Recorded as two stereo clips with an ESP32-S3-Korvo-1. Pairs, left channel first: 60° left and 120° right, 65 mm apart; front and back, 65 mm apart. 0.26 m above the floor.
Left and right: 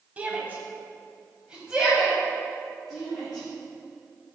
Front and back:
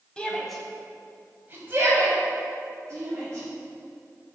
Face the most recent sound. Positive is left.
turn(degrees=150)